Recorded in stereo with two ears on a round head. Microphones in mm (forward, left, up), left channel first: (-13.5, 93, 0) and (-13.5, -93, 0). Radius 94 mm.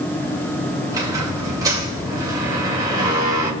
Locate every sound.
0.9 s a squeak: 20° right (ahead or behind), 2.5 m